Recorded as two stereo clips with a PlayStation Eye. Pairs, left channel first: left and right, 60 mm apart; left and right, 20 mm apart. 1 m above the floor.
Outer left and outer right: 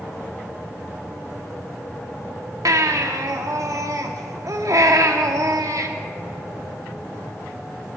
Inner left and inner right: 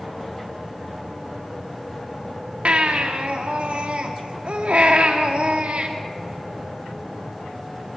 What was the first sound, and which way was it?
A baby crying, 70° right (ahead or behind).